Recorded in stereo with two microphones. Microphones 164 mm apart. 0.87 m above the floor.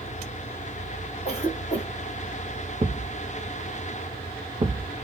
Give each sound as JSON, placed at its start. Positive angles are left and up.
{"t": 1.2, "sound": "a cough", "side_deg": 45, "distance_m": 2.0}
{"t": 2.8, "sound": "a thud", "side_deg": -30, "distance_m": 0.6}